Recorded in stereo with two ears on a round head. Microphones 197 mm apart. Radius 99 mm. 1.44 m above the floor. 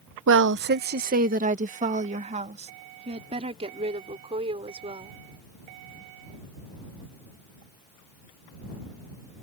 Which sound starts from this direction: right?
A woman speaking, at 0.3 s.